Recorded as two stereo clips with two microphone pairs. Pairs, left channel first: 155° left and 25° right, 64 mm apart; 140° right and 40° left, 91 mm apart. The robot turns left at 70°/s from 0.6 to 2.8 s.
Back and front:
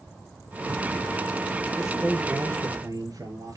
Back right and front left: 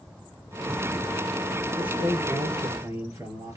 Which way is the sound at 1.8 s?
60° left.